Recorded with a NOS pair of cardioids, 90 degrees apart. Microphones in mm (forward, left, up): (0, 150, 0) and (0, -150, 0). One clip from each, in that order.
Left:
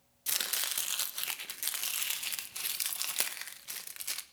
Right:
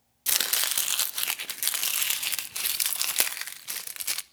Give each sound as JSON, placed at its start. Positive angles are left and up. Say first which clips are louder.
{"t": 0.3, "sound": "chopping", "louder": "right 7 dB", "azimuth_deg": -40, "distance_m": 0.8}